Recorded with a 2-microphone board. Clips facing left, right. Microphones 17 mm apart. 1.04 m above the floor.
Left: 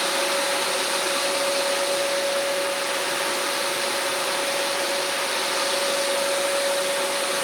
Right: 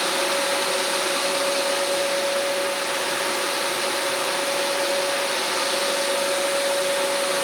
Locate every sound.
Only background noise.